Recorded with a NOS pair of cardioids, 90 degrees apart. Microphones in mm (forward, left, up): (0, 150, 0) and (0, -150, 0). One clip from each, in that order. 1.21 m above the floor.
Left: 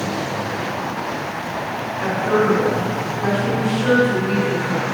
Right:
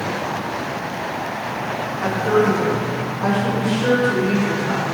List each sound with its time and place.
2.0 s a woman speaking: 10° left, 2 m; by 4.9 s 50° right, 4 m